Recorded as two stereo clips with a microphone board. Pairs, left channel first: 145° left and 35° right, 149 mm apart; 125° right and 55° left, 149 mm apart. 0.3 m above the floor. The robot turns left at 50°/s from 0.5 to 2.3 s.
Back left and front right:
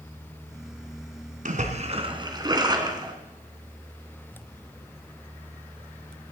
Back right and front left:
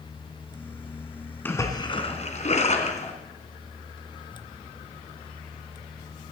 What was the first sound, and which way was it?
A splash, 50° right.